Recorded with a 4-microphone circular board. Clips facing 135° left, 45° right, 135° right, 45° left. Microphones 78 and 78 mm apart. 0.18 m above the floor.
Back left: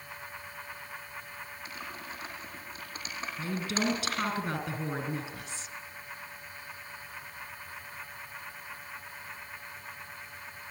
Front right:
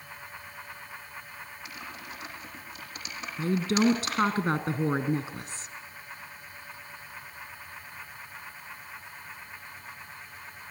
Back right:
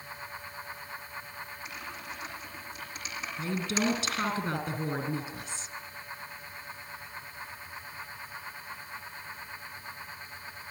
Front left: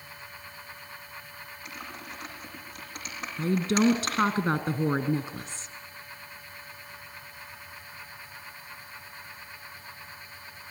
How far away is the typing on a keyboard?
About 8 m.